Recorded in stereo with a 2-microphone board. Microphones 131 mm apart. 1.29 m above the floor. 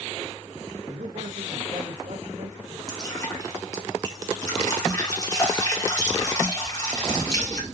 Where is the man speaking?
70° right (ahead or behind), 1.2 m.